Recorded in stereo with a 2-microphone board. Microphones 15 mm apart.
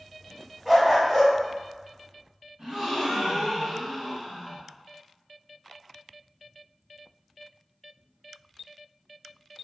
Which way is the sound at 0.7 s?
15° right (ahead or behind).